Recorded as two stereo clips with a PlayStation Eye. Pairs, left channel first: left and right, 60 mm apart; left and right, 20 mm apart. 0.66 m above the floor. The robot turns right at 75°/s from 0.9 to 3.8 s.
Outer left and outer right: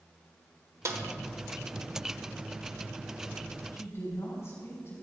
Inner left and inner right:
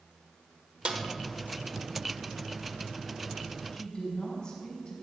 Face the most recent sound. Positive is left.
turn(degrees=50)  # may be behind; listen again after turning